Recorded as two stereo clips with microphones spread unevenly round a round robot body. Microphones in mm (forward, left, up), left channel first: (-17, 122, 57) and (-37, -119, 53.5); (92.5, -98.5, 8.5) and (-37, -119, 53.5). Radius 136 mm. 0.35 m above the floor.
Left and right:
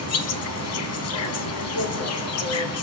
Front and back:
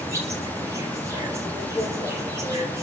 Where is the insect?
105° left, 1.5 m.